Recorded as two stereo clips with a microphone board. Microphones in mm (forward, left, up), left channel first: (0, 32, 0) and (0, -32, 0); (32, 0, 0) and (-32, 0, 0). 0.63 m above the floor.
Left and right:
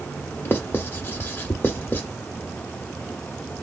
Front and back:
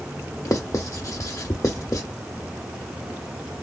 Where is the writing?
35° left, 0.9 m.